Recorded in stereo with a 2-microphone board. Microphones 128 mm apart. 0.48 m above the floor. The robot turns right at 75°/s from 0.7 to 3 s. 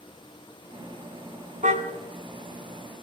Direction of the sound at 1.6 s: 75° right (ahead or behind).